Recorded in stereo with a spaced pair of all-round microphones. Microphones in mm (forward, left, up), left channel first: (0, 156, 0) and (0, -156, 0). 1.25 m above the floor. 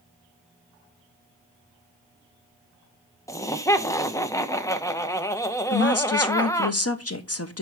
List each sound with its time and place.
3.3 s laughter: 10° left (ahead or behind), 0.9 m
5.7 s a woman speaking: 50° left (ahead or behind), 0.8 m